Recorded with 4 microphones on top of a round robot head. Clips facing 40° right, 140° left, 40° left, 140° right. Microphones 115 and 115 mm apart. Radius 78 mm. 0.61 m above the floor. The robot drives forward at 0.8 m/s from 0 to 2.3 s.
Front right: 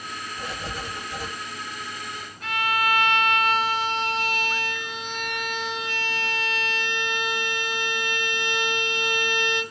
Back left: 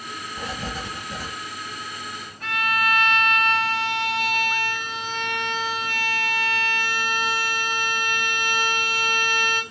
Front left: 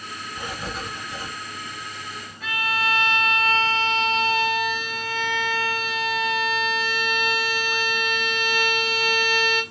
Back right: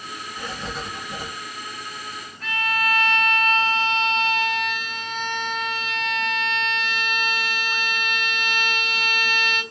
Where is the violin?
125° left, 1.4 m.